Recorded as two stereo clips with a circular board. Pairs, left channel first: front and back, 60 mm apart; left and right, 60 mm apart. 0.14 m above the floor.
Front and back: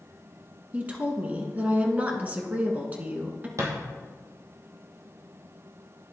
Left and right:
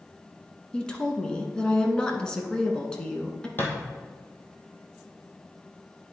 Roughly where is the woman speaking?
Behind left.